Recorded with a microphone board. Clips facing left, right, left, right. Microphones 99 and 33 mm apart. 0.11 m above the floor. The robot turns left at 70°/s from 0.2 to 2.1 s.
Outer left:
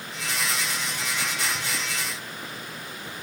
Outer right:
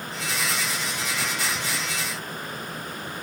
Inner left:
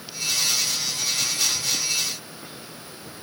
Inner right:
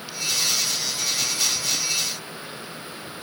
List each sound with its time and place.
Only background noise.